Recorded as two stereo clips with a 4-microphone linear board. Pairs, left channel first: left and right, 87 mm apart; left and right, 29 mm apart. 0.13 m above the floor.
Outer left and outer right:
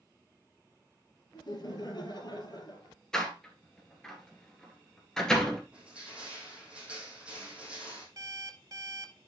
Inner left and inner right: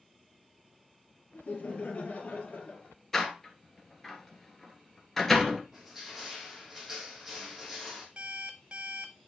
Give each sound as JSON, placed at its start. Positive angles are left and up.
{"t": 1.3, "sound": "laughter", "side_deg": 55, "distance_m": 2.5}
{"t": 3.1, "sound": "a door slam", "side_deg": 5, "distance_m": 1.7}
{"t": 5.7, "sound": "crushing", "side_deg": -15, "distance_m": 3.5}
{"t": 8.2, "sound": "an alarm clock", "side_deg": -40, "distance_m": 0.7}